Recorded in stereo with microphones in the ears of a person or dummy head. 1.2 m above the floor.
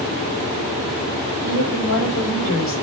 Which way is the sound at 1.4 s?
55° left (ahead or behind).